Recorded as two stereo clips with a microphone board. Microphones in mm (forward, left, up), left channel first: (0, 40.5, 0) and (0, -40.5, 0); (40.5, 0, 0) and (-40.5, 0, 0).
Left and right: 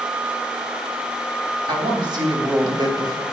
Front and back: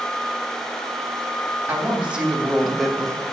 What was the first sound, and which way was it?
A woman speaking, 110° right.